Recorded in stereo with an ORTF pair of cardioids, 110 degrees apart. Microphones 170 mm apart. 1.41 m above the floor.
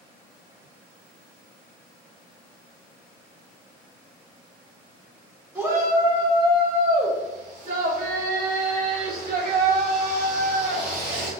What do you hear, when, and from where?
5.5 s a shout: 15° right, 1.6 m; by 11.3 s 80° right, 3.5 m